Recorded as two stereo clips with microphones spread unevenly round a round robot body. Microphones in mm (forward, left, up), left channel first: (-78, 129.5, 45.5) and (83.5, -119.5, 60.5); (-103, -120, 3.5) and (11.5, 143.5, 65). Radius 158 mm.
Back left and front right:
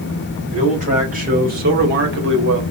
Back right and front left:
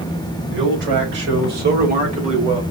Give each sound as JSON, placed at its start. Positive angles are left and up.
{"t": 0.5, "sound": "a man speaking", "azimuth_deg": 10, "distance_m": 4.0}